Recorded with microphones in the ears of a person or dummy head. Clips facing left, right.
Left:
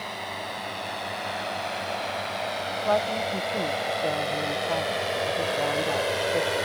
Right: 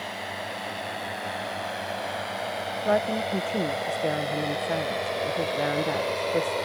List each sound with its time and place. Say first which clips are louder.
0.0 s a drone: even; 10° right (ahead or behind); by 6.7 s 10° left (ahead or behind)
2.9 s a woman speaking: right 1 dB; 20° right (ahead or behind)